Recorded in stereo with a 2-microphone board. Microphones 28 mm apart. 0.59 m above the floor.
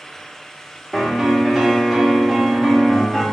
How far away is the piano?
About 1.2 m.